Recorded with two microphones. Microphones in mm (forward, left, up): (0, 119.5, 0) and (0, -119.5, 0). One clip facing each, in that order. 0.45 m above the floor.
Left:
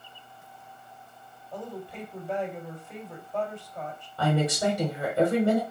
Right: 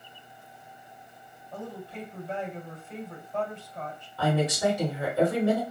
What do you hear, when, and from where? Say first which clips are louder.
1.5 s a woman speaking: left 1 dB; 15° left (ahead or behind), 3 m
4.2 s a woman speaking: even; 20° left (ahead or behind), 1.7 m